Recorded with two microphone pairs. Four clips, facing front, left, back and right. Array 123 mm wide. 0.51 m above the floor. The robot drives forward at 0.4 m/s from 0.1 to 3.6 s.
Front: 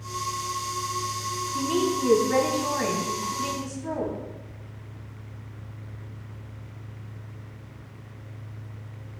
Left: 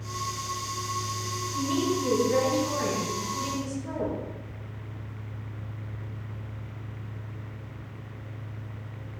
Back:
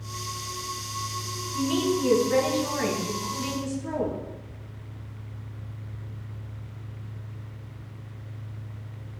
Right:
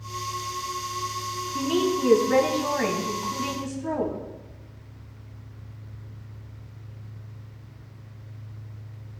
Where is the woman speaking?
60° right, 3.5 m; by 4.2 s 75° right, 3.5 m.